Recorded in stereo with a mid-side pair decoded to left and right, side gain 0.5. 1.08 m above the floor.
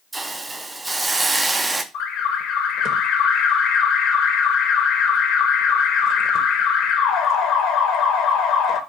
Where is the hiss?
20° right, 0.6 m.